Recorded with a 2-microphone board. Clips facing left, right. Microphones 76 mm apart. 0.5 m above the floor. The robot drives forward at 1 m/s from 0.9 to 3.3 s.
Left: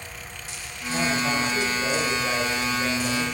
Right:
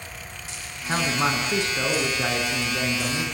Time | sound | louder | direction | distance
0.9 | a man speaking | right 1 dB | 70° right (ahead or behind) | 6.5 m